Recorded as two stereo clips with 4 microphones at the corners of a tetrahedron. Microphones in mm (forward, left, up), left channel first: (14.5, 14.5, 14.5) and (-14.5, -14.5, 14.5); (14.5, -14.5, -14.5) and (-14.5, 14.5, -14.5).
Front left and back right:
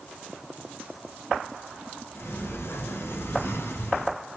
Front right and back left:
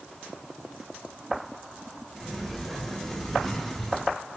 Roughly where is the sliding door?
Ahead left.